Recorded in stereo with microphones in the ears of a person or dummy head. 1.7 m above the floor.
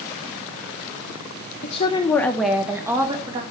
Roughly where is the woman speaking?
Left.